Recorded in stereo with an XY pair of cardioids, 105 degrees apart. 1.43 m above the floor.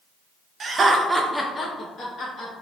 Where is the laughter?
45° right, 0.7 m; by 2.5 s 60° left, 1.1 m.